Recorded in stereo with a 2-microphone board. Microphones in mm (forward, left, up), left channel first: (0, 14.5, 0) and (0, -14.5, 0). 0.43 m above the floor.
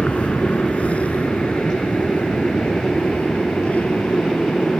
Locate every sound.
0.0 s an aircraft: 50° left (ahead or behind); by 4.8 s 60° left (ahead or behind)